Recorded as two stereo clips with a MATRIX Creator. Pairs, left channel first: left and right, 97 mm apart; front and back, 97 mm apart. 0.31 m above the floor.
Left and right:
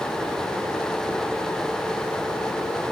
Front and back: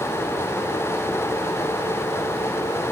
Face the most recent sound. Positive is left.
No sound to turn to.